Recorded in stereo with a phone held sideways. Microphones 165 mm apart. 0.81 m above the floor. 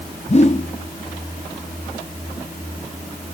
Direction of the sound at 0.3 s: 40° left (ahead or behind).